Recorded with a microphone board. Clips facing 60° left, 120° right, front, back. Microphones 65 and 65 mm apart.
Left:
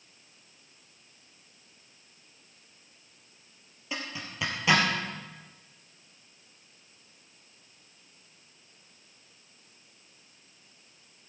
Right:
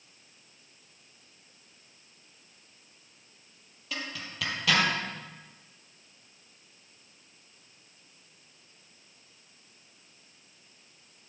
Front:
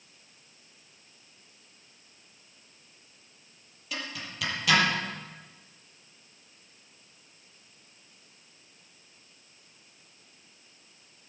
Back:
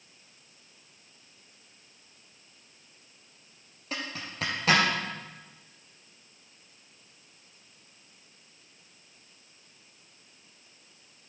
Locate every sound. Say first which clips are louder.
3.9 s a zipper: left 1 dB, back 1 dB; 130° left, 3.5 m